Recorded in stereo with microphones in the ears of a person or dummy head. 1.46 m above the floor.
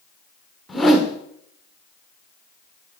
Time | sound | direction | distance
0.7 | a whoosh | 5° left (ahead or behind) | 1.1 m